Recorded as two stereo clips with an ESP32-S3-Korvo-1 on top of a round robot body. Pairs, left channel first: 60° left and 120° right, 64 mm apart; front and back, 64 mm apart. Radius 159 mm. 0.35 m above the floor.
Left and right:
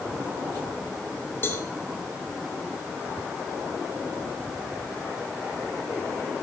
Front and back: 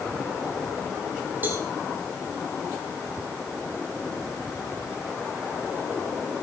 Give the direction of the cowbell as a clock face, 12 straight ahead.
8 o'clock.